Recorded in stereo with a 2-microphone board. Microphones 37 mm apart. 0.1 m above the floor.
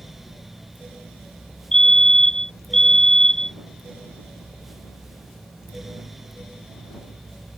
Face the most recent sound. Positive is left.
turn(degrees=15)  # may be behind; listen again after turning